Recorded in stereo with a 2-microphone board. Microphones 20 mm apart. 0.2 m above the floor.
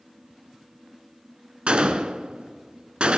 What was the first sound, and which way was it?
A gunshot, 65° right (ahead or behind).